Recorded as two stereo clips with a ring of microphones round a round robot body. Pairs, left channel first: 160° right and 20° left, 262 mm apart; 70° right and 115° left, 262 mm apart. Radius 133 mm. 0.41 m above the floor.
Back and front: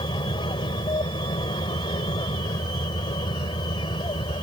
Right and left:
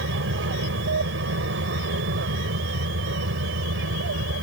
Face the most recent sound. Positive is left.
turn(degrees=135)